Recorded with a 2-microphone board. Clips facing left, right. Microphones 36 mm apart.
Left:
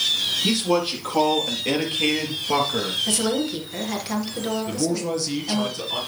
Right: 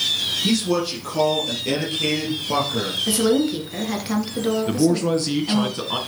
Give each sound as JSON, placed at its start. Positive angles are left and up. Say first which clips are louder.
{"t": 0.4, "sound": "a man speaking", "louder": "right 1 dB", "side_deg": 25, "distance_m": 5.0}
{"t": 3.1, "sound": "a woman speaking", "louder": "right 5 dB", "side_deg": -10, "distance_m": 2.5}
{"t": 4.7, "sound": "a man speaking", "louder": "right 6 dB", "side_deg": -40, "distance_m": 2.5}